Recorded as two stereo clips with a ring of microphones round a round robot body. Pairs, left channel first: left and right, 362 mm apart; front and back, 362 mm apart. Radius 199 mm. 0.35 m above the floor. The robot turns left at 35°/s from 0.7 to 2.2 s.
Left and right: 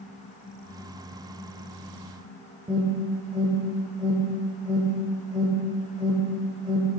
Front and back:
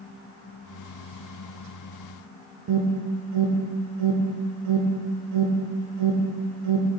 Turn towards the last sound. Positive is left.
turn(degrees=-160)